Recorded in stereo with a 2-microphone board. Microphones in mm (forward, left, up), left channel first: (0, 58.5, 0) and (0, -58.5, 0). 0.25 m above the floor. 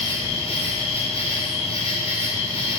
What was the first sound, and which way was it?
An insect, 55° left (ahead or behind).